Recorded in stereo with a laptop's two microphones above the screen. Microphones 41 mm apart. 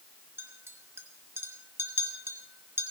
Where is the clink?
75° right (ahead or behind), 2 m.